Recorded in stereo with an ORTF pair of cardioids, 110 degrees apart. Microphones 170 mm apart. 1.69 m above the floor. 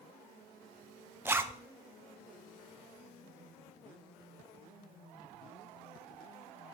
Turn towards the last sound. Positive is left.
turn(degrees=-15)